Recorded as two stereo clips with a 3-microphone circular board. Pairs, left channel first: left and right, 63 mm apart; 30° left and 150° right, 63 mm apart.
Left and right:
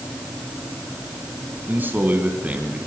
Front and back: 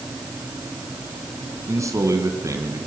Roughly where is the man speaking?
Behind right.